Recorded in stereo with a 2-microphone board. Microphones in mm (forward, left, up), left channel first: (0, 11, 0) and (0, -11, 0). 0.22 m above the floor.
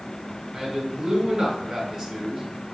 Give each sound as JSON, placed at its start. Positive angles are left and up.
{"t": 0.5, "sound": "a man speaking", "side_deg": -30, "distance_m": 1.9}